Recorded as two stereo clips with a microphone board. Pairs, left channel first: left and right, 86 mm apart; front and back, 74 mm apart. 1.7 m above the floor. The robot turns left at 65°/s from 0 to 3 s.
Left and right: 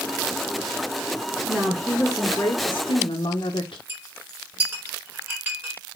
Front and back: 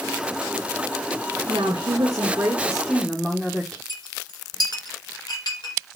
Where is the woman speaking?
160° right, 1.5 m; by 3.8 s 100° left, 1.5 m.